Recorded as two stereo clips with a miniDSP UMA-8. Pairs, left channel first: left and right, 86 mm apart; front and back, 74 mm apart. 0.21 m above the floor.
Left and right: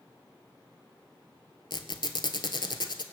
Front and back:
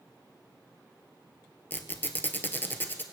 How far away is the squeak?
About 0.9 m.